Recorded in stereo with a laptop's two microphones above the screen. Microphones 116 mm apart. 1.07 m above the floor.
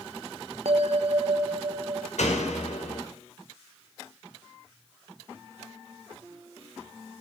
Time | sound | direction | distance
0.7 | a bell | 65° right (ahead or behind) | 0.5 m
2.2 | a door slam | 85° left | 2.5 m